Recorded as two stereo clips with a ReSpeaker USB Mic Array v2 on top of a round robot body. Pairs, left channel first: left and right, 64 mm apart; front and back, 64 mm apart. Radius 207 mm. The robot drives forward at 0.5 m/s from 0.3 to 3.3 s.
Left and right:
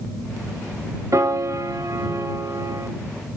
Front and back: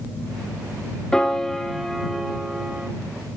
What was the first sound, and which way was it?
A piano, 75° right.